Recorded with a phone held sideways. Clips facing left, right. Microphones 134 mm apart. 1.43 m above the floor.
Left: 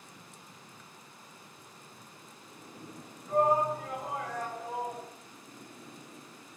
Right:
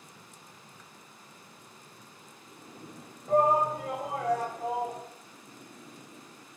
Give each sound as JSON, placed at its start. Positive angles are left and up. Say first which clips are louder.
{"t": 3.3, "sound": "a shout", "louder": "right 2 dB", "side_deg": -55, "distance_m": 1.5}